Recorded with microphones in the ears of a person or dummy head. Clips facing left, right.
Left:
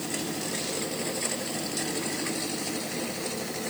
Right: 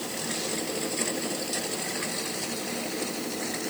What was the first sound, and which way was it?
Only background noise.